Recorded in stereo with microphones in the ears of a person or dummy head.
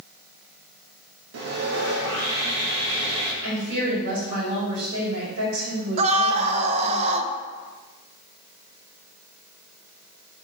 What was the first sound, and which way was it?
Sawing, 80° right.